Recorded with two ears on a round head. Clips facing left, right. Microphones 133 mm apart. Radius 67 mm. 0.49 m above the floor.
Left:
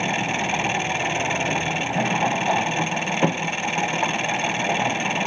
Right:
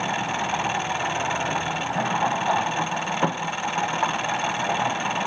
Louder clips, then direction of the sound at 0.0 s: Left 1 dB; 20° left (ahead or behind).